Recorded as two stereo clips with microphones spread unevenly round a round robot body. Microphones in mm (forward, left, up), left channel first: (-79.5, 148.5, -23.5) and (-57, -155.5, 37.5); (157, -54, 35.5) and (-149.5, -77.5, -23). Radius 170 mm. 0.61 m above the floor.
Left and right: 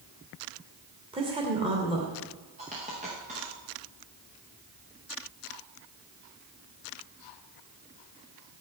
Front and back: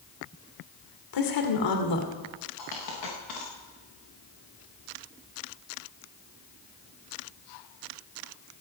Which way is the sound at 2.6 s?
15° right.